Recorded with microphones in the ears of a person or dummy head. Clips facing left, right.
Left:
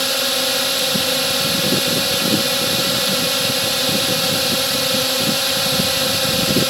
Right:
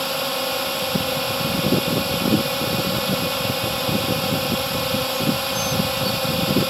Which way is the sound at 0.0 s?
30° left (ahead or behind).